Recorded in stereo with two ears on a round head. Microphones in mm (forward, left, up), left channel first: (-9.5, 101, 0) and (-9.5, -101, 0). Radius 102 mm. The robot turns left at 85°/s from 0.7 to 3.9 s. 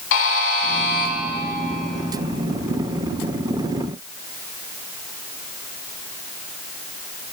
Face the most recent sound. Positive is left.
turn(degrees=155)